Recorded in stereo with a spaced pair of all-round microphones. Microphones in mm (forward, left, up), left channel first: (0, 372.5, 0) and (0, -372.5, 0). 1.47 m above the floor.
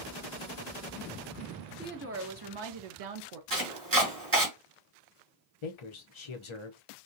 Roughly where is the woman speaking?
Centre.